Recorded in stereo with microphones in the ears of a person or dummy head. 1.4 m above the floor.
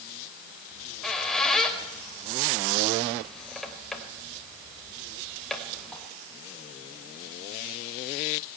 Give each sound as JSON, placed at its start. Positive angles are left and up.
{"t": 0.7, "sound": "a squeak", "side_deg": 5, "distance_m": 3.0}